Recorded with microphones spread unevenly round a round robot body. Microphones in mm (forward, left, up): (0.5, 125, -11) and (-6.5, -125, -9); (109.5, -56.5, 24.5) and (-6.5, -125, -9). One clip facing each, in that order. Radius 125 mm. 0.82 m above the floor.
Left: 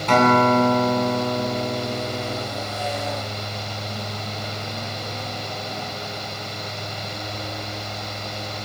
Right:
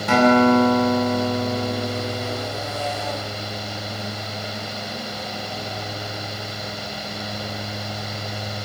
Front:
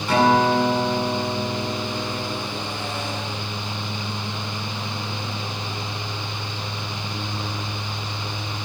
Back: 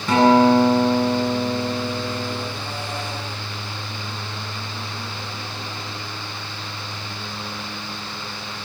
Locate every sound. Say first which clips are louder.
0.1 s a guitar: right 3 dB, back 4 dB; 170° right, 9.5 m